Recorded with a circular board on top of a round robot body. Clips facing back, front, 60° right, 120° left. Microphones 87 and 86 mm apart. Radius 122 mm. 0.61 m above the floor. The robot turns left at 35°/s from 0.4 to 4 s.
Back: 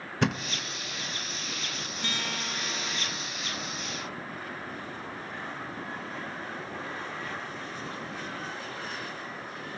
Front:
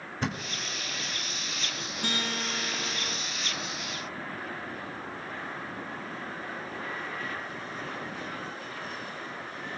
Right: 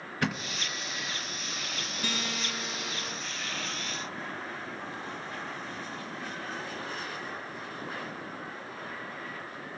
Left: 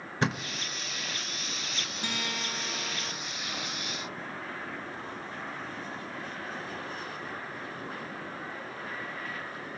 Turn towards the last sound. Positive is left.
turn(degrees=-10)